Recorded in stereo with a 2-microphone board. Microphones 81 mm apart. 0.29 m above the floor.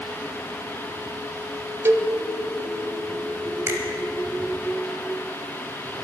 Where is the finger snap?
35° right (ahead or behind), 1.9 m.